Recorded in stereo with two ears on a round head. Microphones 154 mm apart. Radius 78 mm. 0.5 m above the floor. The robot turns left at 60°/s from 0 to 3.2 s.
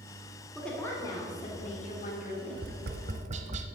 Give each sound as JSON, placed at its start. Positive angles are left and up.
{"t": 0.6, "sound": "a woman speaking", "azimuth_deg": 180, "distance_m": 1.7}
{"t": 2.5, "sound": "tapping", "side_deg": -80, "distance_m": 0.8}